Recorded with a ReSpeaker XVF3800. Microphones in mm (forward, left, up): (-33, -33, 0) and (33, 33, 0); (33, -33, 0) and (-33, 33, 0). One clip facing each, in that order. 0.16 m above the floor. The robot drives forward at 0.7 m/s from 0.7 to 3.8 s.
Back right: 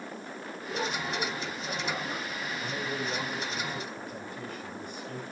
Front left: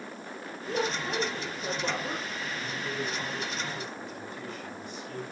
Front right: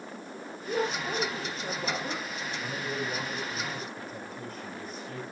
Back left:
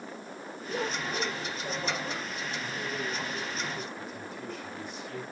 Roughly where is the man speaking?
Right.